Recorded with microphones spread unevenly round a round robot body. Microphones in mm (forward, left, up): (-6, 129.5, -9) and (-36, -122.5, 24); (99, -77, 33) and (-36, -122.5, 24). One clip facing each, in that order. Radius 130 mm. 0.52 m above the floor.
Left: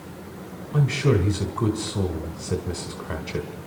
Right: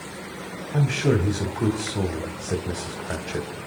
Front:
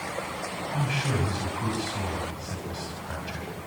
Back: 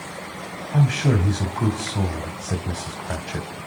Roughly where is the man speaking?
Behind.